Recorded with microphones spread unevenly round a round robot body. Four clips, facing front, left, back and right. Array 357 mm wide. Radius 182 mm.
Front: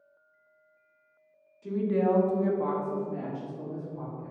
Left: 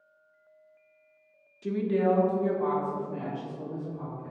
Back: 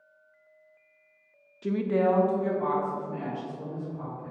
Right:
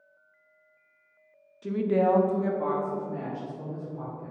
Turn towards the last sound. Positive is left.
turn(degrees=-50)